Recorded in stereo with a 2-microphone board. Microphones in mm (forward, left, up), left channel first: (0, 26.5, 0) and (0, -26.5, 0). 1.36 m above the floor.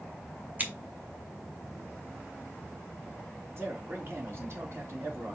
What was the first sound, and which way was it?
Scissors, 35° right (ahead or behind).